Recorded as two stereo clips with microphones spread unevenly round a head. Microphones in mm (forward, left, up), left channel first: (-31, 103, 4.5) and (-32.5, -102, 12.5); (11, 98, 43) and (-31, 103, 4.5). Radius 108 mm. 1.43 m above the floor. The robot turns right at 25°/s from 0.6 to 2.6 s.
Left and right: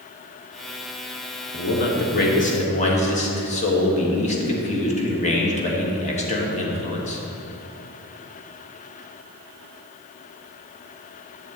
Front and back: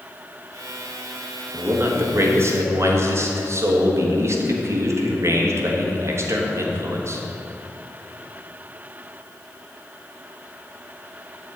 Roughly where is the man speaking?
Behind left.